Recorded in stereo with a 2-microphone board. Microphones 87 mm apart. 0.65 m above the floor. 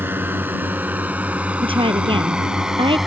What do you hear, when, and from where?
0.0 s a drone: 25° right (ahead or behind); by 3.1 s 5° right (ahead or behind)
1.6 s a woman speaking: 85° right